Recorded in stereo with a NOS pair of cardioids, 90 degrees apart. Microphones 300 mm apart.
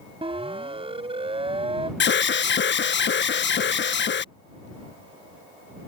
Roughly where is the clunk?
I don't hear a clunk.